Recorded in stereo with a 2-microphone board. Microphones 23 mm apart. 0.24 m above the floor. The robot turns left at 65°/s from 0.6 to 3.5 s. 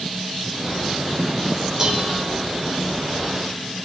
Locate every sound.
1.8 s dishes clattering: 30° right (ahead or behind), 3.5 m; by 2.2 s 55° right (ahead or behind), 3.5 m